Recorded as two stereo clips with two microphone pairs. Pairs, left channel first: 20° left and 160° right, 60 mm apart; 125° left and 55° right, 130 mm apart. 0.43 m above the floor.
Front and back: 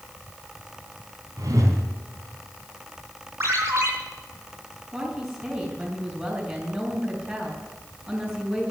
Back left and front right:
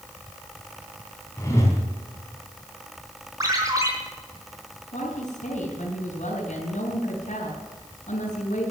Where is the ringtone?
115° right, 4 m.